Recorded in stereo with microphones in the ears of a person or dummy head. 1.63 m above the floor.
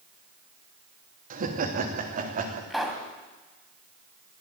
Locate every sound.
1.3 s laughter: 50° right (ahead or behind), 2.5 m
2.7 s a pop: centre (ahead or behind), 2.5 m